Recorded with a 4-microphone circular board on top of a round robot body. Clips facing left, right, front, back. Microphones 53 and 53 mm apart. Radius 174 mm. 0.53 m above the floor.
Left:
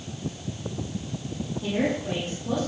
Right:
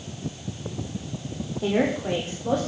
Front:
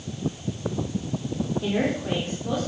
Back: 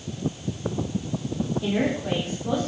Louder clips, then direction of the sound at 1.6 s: Right 3 dB, back 1 dB; 80° right.